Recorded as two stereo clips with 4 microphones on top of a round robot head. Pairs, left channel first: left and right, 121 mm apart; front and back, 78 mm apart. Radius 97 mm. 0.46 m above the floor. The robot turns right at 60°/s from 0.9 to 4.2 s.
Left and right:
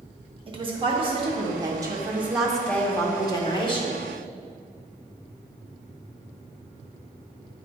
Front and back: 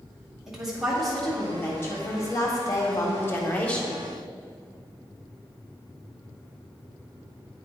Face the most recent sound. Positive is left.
turn(degrees=100)